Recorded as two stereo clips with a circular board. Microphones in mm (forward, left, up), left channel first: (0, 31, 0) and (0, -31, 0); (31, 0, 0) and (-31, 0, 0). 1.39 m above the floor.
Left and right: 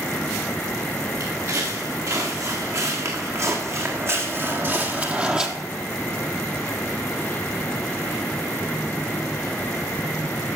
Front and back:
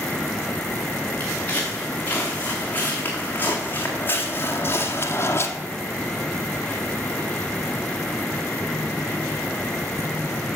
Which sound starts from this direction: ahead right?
Footsteps, at 1.2 s.